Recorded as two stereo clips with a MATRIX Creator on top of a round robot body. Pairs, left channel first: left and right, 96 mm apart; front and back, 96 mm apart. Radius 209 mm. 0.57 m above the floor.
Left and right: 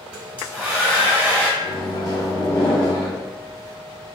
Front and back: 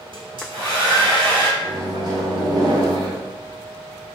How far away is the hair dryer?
About 1.2 m.